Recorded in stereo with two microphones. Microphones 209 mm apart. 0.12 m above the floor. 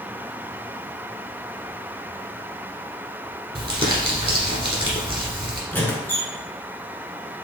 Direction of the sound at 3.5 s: 25° right (ahead or behind).